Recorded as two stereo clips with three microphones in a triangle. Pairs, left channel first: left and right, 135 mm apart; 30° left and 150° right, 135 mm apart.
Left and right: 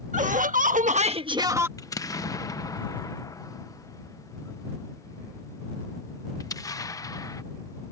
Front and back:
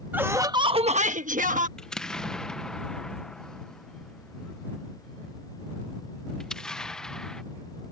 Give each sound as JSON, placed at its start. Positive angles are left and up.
{"t": 0.1, "sound": "laughter", "azimuth_deg": -75}
{"t": 1.8, "sound": "an explosion", "azimuth_deg": 110}